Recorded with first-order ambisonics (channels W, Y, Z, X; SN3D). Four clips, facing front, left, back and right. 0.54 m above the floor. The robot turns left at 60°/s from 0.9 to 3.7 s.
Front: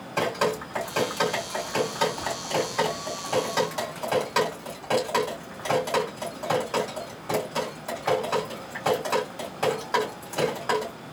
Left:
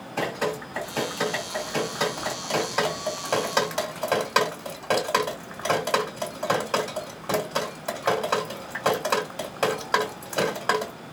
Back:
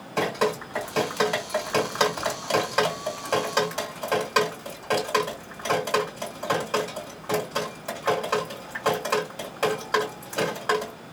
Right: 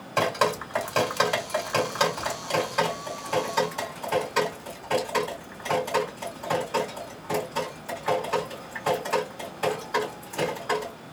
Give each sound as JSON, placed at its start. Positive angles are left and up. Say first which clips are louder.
{"t": 0.2, "sound": "dripping", "louder": "right 4 dB, back 1 dB", "azimuth_deg": -90, "distance_m": 2.5}